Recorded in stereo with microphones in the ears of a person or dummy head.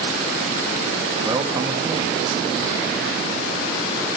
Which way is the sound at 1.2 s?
25° right (ahead or behind).